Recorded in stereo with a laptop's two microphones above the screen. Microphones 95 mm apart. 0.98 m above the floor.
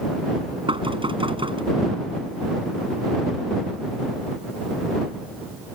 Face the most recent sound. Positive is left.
turn(degrees=-65)  # may be behind; listen again after turning